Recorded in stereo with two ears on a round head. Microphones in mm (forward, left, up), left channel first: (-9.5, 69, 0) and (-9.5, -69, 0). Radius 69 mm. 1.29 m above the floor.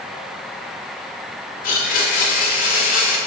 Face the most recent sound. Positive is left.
turn(degrees=65)  # may be behind; listen again after turning